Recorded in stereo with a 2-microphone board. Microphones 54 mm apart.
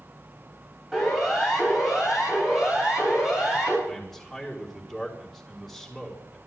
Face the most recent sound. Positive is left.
turn(degrees=0)  # may be behind; listen again after turning